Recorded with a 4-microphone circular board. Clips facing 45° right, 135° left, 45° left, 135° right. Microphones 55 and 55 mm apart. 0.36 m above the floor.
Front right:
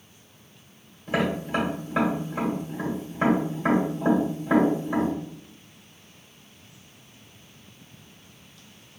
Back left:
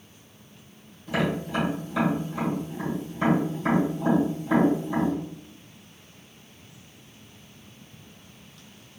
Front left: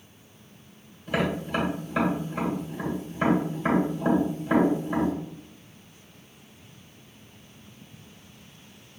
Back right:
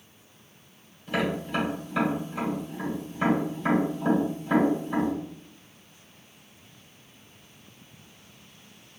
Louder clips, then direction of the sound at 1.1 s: Front right 1 dB, front left 1 dB; 35° right.